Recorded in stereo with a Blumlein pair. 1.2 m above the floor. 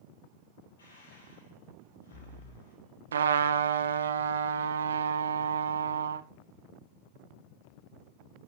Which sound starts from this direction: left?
Breathing, at 0.8 s.